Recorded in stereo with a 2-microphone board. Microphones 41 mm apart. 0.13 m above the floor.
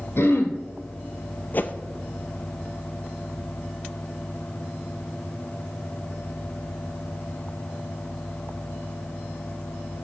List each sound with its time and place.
0.2 s throat clearing: 65° left (ahead or behind), 1.4 m
1.5 s a whoosh: 50° left (ahead or behind), 0.6 m